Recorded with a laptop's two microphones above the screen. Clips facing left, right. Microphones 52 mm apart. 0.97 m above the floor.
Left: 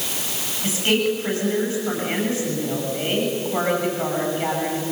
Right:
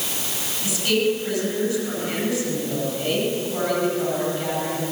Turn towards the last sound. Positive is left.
turn(degrees=35)  # may be behind; listen again after turning